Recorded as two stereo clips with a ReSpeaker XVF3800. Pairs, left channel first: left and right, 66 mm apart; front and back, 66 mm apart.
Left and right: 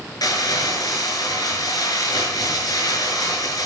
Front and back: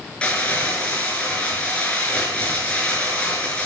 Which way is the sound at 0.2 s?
70° left.